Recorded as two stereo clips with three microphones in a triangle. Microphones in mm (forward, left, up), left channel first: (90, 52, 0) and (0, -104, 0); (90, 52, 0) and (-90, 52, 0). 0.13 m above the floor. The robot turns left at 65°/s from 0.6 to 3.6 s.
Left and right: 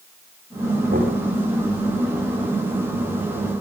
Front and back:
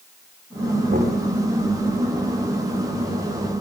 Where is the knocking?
145° right, 10 m; by 1.2 s 165° right, 10 m.